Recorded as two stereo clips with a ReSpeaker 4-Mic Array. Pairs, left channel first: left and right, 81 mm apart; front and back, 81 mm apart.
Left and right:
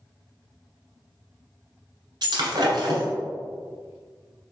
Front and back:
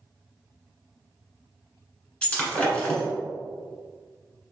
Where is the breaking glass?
75° right, 1.3 m.